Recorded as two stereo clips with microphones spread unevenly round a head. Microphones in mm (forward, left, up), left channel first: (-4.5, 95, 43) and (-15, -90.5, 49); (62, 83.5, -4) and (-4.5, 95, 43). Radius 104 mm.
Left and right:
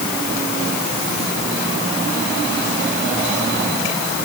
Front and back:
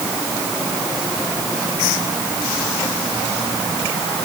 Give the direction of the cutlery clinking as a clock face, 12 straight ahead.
I don't hear cutlery clinking.